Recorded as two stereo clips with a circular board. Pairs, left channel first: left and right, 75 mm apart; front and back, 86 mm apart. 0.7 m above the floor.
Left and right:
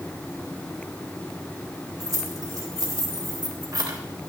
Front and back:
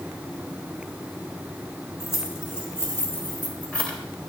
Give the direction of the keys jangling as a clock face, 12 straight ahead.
2 o'clock.